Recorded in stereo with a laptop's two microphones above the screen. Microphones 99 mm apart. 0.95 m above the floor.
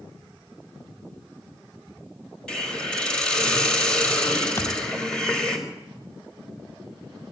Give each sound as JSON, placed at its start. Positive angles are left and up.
{"t": 2.5, "sound": "a hiss", "side_deg": 10, "distance_m": 4.0}
{"t": 4.6, "sound": "a thud", "side_deg": 25, "distance_m": 0.6}